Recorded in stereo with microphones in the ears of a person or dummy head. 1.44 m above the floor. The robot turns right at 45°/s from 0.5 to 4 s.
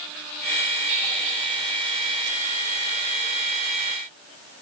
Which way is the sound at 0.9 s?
65° right (ahead or behind).